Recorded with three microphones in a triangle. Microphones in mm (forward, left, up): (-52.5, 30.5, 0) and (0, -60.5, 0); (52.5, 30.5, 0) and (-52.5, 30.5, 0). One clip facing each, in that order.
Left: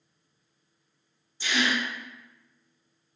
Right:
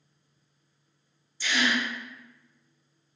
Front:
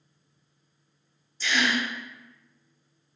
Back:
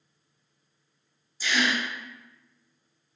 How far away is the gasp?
About 0.9 m.